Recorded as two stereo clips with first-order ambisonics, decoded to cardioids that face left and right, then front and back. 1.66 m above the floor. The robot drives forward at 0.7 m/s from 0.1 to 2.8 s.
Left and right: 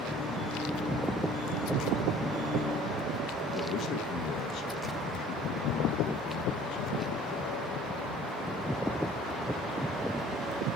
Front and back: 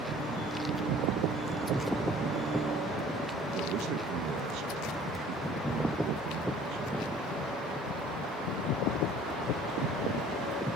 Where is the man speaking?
140° left, 2.5 m.